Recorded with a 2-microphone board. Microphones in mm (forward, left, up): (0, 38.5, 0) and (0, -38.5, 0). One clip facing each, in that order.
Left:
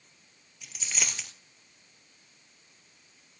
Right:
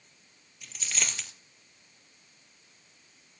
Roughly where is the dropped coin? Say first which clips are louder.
Even; centre.